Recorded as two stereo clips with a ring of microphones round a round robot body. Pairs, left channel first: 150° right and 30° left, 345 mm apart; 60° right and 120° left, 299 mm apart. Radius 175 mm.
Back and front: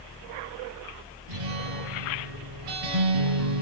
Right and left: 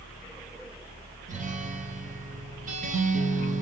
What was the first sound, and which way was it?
A guitar, 55° left.